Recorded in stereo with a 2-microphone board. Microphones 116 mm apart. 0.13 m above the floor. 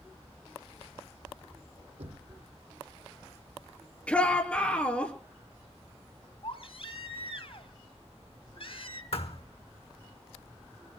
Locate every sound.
2.0 s knocking: 75° right (ahead or behind), 3.5 m
4.1 s a shout: 10° left (ahead or behind), 3 m
6.4 s a baby crying: 55° left (ahead or behind), 1.9 m
9.1 s a thud: 60° left (ahead or behind), 1.4 m